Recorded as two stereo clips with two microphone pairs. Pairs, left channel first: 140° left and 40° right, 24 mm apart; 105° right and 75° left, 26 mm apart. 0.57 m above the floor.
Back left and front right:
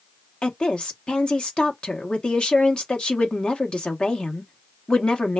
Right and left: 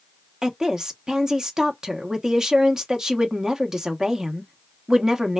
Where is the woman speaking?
130° left, 0.7 m.